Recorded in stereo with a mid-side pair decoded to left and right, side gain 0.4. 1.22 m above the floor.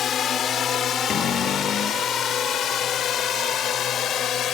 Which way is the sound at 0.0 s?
65° left.